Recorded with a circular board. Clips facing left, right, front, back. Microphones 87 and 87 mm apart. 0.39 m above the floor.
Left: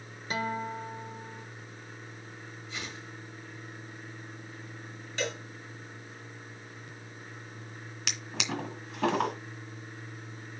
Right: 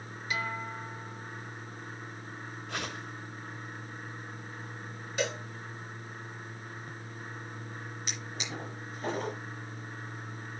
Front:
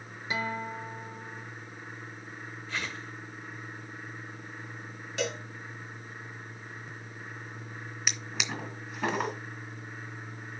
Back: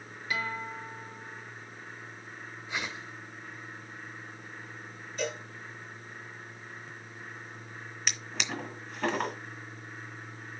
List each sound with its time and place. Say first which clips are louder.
0.3 s a guitar: left 3 dB, front 2 dB; 60° left, 1.3 m
2.7 s a whoosh: right 4 dB, even; 105° right, 1.4 m
5.2 s a cowbell: right 2 dB, front 1 dB; 15° right, 4 m
8.1 s a drawer: left 6 dB, even; 90° left, 2 m